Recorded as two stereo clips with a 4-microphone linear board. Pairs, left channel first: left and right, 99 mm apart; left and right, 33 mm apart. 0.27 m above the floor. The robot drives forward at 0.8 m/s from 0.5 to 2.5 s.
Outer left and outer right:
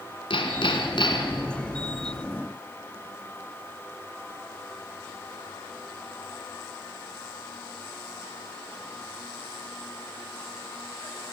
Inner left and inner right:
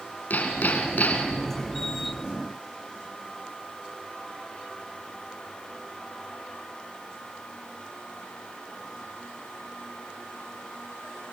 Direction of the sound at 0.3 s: 65° left (ahead or behind).